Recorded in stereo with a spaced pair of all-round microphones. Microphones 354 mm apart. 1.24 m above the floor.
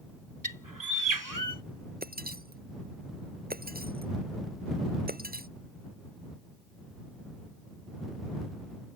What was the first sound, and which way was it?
A bird, 60° right (ahead or behind).